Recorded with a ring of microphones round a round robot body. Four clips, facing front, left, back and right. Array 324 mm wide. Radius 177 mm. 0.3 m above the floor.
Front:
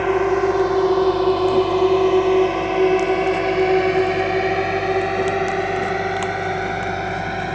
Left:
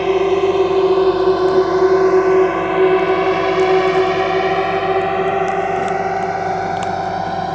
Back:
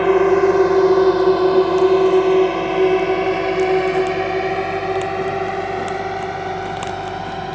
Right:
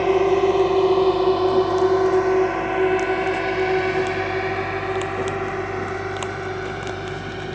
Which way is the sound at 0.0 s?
160° left.